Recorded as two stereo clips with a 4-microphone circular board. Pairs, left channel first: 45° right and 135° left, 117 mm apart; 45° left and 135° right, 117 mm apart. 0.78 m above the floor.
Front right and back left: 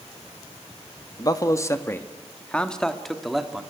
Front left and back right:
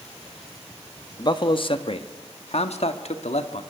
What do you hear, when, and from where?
1.2 s a man speaking: 5° left, 1.2 m; by 3.6 s 50° left, 1.8 m